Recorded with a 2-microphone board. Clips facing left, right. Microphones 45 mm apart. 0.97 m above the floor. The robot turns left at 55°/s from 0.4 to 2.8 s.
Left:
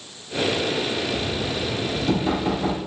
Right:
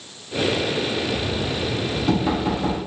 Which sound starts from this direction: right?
Knocking, at 1.1 s.